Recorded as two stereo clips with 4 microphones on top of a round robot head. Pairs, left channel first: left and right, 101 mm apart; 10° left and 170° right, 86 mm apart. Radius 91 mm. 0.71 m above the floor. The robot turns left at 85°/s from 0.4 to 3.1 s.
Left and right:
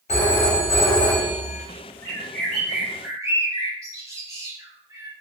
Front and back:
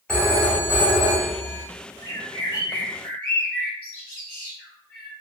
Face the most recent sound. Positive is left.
turn(degrees=-50)